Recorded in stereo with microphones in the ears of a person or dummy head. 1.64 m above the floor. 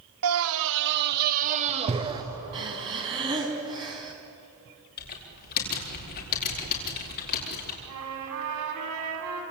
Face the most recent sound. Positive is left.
turn(degrees=-80)